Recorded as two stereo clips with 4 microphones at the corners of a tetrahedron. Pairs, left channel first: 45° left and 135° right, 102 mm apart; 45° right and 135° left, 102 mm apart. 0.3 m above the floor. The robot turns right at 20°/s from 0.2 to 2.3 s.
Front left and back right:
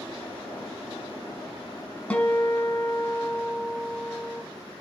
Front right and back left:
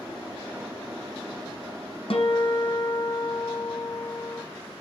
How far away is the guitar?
About 1.2 m.